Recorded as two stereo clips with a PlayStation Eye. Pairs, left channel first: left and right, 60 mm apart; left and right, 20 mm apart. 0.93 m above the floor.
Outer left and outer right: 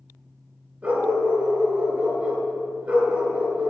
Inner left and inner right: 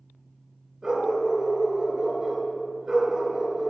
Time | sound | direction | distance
0.8 | a dog barking | 20° right (ahead or behind) | 3.5 m